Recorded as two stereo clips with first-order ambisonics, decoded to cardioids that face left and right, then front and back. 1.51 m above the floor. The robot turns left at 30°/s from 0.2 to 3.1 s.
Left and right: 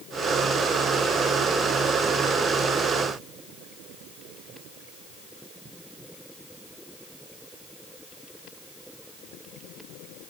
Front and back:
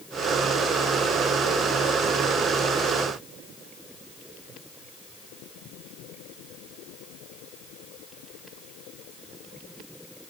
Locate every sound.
Only background noise.